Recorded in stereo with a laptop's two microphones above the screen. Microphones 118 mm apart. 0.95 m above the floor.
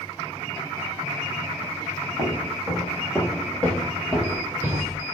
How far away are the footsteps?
About 1.7 m.